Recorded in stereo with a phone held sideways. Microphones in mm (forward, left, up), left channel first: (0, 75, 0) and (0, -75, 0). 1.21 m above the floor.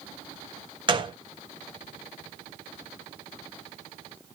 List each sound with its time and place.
0.9 s a gunshot: 35° right (ahead or behind), 0.6 m